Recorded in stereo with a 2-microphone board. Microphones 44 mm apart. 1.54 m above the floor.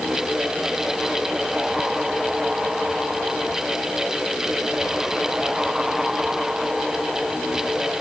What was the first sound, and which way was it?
Only background noise.